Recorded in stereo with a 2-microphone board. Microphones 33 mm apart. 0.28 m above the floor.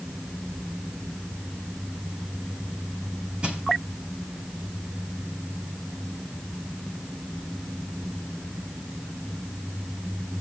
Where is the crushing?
35° right (ahead or behind), 3.5 m.